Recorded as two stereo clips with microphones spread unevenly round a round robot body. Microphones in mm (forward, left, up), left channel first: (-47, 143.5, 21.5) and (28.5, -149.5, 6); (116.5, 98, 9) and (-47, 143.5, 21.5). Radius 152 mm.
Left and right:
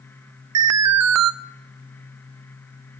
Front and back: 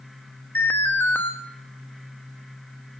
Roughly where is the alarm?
Right.